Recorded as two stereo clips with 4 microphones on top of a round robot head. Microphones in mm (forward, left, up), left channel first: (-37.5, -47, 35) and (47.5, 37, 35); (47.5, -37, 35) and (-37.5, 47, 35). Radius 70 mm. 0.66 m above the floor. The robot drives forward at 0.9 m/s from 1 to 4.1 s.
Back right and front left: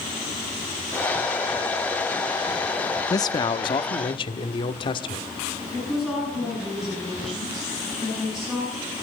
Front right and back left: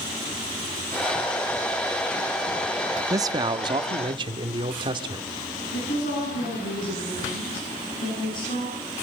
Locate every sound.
3.1 s a man speaking: straight behind, 0.7 m
5.7 s a woman speaking: 45° right, 8.5 m